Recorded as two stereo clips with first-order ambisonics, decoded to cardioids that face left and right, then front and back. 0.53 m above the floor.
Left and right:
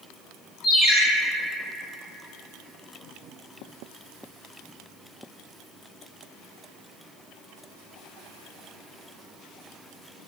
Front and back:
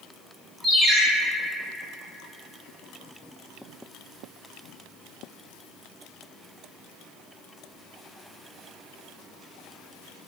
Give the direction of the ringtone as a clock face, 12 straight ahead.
8 o'clock.